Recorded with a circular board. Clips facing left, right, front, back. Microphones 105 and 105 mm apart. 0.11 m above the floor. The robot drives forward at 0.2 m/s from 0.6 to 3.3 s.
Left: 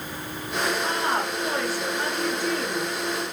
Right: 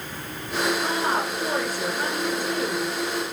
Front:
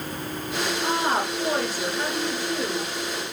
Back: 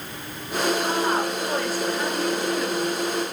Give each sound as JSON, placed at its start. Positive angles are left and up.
{"t": 0.8, "sound": "a woman speaking", "azimuth_deg": -45, "distance_m": 1.7}